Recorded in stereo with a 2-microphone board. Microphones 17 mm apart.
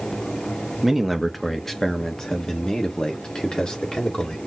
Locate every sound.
0.8 s a man speaking: 10° right (ahead or behind), 0.8 m; by 4.4 s 60° left (ahead or behind), 1.9 m